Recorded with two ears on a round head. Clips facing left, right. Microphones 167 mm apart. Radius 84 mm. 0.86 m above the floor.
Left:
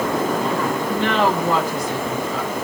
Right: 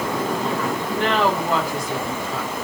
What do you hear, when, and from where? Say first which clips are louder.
0.9 s a woman speaking: even; 85° left, 7 m